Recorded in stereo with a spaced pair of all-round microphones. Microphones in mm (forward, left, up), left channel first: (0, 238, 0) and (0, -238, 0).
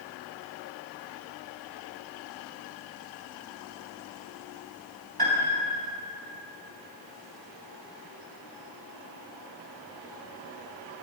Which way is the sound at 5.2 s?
50° right (ahead or behind).